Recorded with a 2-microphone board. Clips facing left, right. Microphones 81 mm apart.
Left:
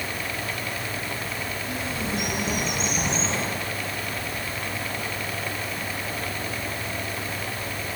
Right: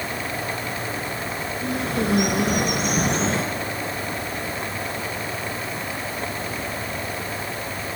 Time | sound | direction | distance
1.6 | a bird | 70° right (ahead or behind) | 4.5 m